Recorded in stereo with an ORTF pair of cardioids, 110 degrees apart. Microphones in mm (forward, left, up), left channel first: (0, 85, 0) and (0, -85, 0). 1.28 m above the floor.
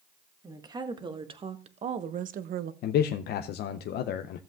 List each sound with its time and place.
0.4 s a woman speaking: 20° right, 1.6 m; by 2.7 s 65° right, 0.7 m
2.8 s a man speaking: 70° left, 0.6 m